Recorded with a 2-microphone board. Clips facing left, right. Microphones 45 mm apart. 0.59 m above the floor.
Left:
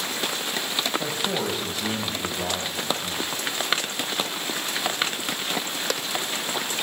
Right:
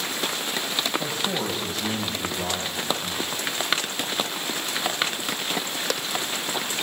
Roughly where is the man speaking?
Centre.